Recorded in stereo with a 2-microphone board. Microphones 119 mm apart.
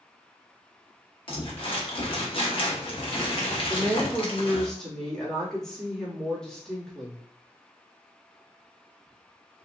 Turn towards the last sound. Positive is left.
turn(degrees=5)  # may be behind; listen again after turning